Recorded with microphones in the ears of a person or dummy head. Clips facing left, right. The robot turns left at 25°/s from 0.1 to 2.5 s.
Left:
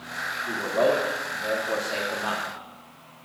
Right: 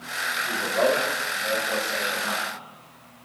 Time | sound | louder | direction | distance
0.5 | a man speaking | left 1 dB | 155° left | 3.5 m